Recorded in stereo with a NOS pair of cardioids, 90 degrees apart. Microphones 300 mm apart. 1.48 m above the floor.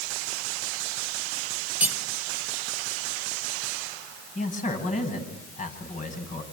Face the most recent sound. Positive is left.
turn(degrees=25)